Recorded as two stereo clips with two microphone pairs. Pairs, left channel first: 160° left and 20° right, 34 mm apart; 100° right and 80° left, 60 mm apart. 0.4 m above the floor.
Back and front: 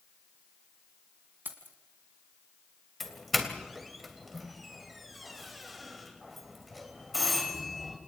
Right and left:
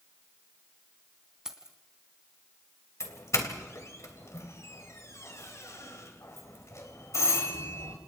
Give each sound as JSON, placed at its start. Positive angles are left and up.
{"t": 1.4, "sound": "keys jangling", "azimuth_deg": -5, "distance_m": 2.5}
{"t": 3.0, "sound": "a doorbell", "azimuth_deg": -110, "distance_m": 3.0}